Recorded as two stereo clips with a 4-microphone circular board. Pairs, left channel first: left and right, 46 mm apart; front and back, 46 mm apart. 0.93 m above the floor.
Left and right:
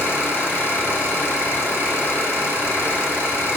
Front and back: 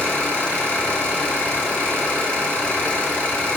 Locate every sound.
0.0 s an engine running: 60° left, 1.8 m